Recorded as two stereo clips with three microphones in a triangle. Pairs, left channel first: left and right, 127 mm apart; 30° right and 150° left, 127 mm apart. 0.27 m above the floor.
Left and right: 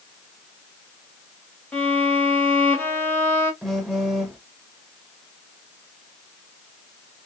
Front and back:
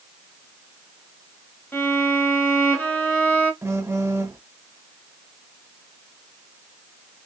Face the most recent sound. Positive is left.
turn(degrees=180)